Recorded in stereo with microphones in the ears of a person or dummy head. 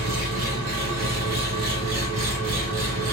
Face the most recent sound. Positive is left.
turn(degrees=-45)  # may be behind; listen again after turning